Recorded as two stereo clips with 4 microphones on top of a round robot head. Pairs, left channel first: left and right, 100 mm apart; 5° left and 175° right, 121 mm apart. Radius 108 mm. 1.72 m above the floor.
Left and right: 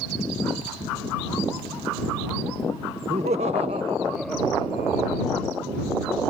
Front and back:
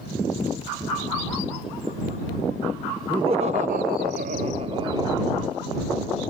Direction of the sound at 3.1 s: 120° right.